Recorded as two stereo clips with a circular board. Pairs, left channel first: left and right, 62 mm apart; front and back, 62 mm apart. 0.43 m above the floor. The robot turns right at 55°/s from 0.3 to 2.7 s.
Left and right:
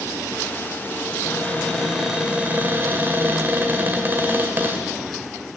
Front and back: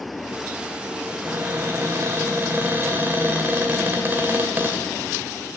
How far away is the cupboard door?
About 2 m.